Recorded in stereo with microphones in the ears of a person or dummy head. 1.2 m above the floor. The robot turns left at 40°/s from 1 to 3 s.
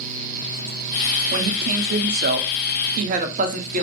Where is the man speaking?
55° right, 0.5 m; by 3.8 s 120° right, 0.5 m.